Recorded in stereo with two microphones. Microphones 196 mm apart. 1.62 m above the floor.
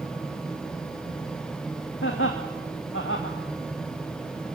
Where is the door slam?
I don't hear a door slam.